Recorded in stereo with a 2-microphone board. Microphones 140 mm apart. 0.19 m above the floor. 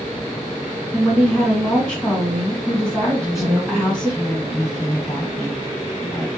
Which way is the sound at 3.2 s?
25° left (ahead or behind).